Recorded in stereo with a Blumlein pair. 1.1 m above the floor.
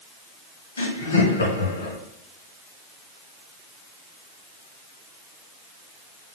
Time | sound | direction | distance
0.8 | laughter | 70° left | 1.7 m